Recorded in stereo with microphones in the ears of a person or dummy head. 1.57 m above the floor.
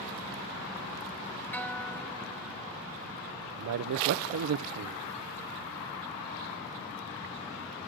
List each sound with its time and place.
1.5 s a guitar: 10° left (ahead or behind), 0.8 m
3.6 s a man speaking: 70° right (ahead or behind), 0.5 m